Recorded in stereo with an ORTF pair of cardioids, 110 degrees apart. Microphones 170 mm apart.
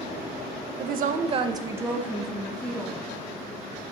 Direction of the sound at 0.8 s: 65° right.